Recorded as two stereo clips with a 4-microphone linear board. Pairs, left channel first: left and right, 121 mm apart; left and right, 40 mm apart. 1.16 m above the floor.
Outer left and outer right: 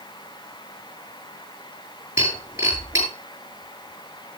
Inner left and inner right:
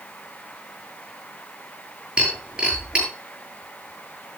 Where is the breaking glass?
20° right (ahead or behind), 6.5 m.